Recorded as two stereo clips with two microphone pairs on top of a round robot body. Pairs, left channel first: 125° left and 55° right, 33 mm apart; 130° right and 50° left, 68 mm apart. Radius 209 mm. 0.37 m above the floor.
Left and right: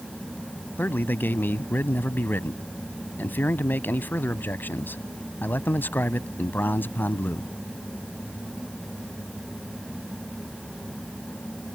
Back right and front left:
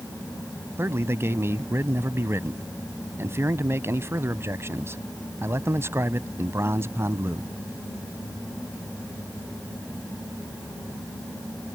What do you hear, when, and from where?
0.8 s a man speaking: 110° left